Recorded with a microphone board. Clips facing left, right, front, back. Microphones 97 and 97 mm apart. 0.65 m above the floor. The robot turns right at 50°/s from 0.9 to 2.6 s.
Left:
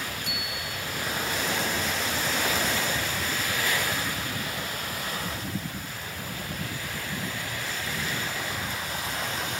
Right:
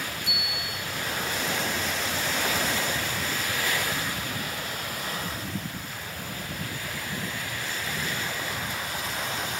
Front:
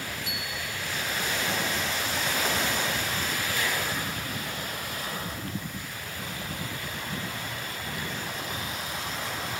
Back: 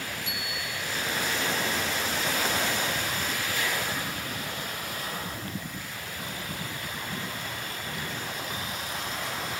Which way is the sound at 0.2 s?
115° left.